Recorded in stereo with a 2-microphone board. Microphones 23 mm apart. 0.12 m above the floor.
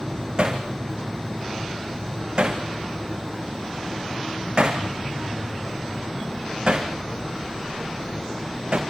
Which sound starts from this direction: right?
Hammering, at 0.4 s.